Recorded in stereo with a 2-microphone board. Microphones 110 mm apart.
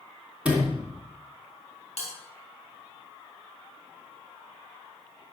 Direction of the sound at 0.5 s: 10° right (ahead or behind).